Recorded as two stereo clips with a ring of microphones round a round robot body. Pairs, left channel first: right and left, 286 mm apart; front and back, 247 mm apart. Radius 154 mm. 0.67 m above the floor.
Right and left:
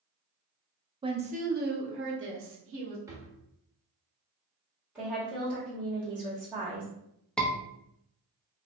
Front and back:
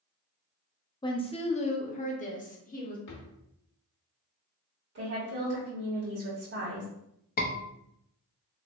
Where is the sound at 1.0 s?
45° left, 0.7 m; by 3.0 s 55° left, 1.4 m.